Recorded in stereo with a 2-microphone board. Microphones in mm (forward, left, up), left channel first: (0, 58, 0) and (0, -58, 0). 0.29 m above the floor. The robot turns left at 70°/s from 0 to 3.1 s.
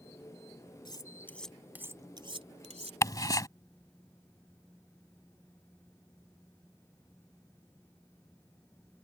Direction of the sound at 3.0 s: 25° left (ahead or behind).